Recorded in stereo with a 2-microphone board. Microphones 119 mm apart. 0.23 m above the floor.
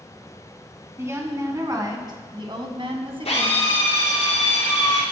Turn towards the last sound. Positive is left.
turn(degrees=65)  # may be behind; listen again after turning